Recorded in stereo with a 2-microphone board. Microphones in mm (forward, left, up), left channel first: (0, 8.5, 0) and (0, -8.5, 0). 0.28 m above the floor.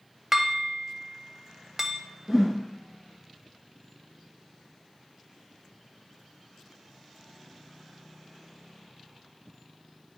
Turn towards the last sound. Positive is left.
turn(degrees=-25)  # may be behind; listen again after turning